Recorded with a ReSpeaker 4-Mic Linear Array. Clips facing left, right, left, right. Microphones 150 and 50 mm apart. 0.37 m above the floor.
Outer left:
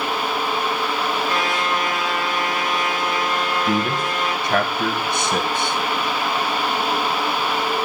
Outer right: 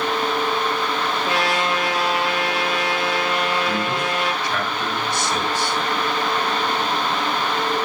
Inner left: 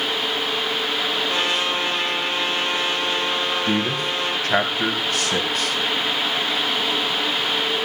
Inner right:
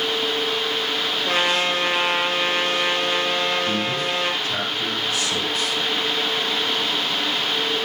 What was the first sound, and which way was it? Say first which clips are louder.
A trumpet: outer right 1 dB, inner right 1 dB; 80° right.